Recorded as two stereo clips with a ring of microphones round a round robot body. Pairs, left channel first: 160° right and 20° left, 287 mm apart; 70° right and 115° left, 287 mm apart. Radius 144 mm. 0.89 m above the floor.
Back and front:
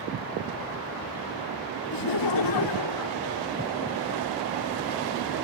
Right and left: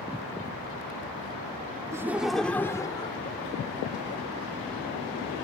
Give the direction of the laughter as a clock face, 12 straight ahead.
6 o'clock.